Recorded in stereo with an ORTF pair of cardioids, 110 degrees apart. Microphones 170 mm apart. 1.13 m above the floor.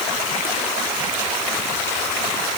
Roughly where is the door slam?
No door slam in this recording.